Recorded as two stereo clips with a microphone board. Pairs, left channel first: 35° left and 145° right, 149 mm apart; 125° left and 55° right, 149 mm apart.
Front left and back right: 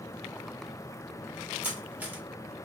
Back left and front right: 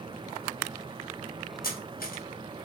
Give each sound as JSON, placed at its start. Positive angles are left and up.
{"t": 1.6, "sound": "cutlery clinking", "azimuth_deg": 135, "distance_m": 0.7}